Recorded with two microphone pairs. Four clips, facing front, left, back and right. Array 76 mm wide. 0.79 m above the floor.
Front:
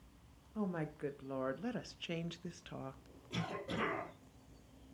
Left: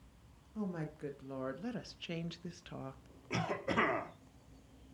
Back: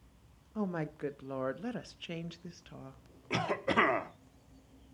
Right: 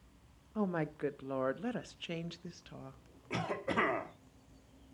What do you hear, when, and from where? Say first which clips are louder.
0.6 s a woman speaking: right 6 dB, back 4 dB; 115° right, 1.2 m; by 3.0 s 50° left, 0.8 m
3.3 s a cough: even, back 11 dB; 175° right, 2 m